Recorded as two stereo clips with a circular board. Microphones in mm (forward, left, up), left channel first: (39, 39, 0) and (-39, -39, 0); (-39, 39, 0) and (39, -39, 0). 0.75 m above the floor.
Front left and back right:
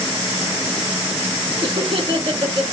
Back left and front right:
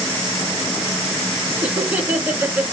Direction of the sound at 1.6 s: 115° right.